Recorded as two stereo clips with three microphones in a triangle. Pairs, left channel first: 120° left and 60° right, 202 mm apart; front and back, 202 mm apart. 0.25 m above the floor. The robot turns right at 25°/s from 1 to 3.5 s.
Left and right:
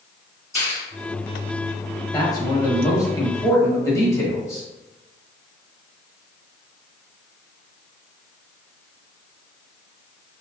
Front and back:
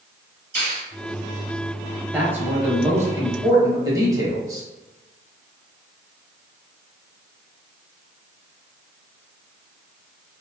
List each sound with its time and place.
0.6 s a finger snap: 75° left, 1.1 m
2.1 s a man speaking: 120° left, 0.9 m; by 4.7 s 155° left, 0.9 m